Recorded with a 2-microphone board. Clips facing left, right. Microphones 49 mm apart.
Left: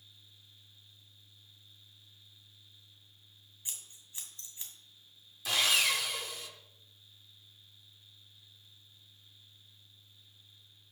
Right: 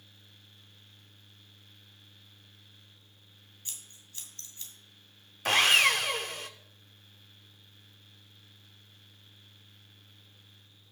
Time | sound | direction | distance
3.6 | scissors | 20° left (ahead or behind) | 2 m
5.5 | sawing | 55° right (ahead or behind) | 0.6 m